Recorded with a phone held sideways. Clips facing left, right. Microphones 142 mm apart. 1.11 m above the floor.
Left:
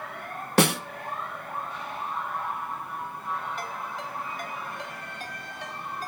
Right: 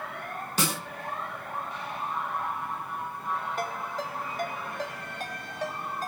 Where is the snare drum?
65° left (ahead or behind), 1.1 m.